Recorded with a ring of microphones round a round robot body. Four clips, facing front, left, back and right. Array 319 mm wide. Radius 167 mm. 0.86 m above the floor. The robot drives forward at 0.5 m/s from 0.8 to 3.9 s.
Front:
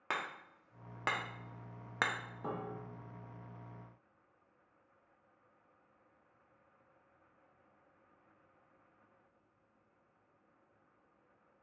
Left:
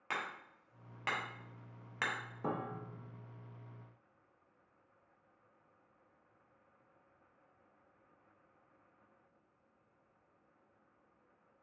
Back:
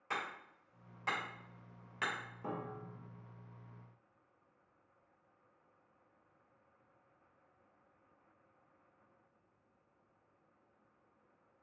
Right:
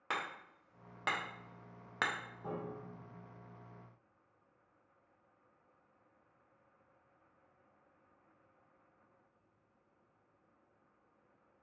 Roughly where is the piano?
Left.